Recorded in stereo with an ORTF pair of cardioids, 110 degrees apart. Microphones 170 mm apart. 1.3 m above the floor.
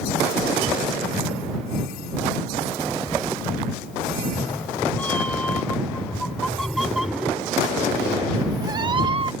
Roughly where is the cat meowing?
Ahead.